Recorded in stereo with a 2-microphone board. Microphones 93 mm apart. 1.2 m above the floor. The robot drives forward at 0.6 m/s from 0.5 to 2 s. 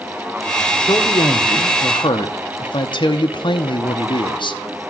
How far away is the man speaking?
About 1.2 m.